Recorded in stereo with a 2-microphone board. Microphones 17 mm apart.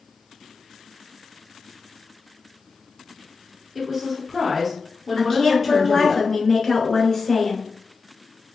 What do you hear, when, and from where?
3.8 s a woman speaking: 10° right (ahead or behind), 1.3 m
5.2 s a woman speaking: 35° left (ahead or behind), 1.3 m